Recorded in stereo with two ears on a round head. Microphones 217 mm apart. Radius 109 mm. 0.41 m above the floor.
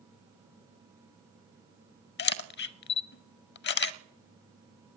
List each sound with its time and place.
2.2 s a camera shutter: 45° left (ahead or behind), 0.5 m